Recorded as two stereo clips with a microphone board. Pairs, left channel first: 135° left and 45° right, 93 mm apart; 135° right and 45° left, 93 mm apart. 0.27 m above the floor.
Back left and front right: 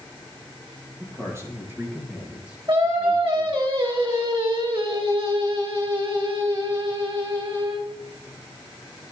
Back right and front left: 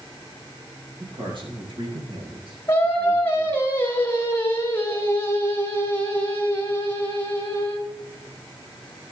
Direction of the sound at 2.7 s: 70° right.